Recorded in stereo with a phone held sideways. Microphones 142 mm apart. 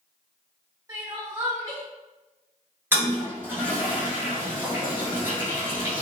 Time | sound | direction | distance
0.9 | crying | 25° right (ahead or behind) | 1.4 m
2.9 | a toilet flushing | 15° right (ahead or behind) | 0.9 m